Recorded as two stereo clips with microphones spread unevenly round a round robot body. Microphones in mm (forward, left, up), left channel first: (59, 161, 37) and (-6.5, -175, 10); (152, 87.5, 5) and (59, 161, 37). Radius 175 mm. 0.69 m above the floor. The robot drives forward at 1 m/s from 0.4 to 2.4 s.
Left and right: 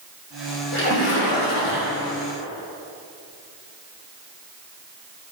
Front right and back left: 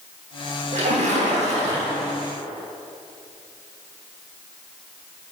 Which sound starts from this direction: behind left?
A splash, at 0.7 s.